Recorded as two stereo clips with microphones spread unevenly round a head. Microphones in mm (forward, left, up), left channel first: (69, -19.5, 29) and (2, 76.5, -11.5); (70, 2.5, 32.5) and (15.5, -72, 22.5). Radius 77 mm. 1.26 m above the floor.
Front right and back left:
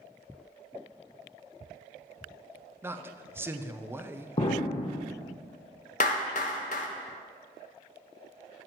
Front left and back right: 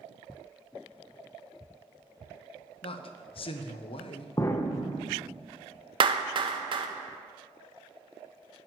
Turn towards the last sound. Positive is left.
turn(degrees=-95)